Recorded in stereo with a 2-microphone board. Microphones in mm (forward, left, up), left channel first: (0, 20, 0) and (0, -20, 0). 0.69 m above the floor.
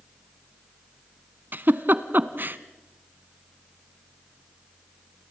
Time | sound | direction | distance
1.5 | a giggle | 55° right (ahead or behind) | 0.9 m